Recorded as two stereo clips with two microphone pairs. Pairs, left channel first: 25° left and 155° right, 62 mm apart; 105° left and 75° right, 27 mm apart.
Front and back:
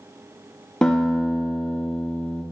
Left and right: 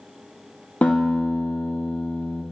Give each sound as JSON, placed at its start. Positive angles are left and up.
{"t": 0.8, "sound": "a guitar", "azimuth_deg": 105, "distance_m": 1.7}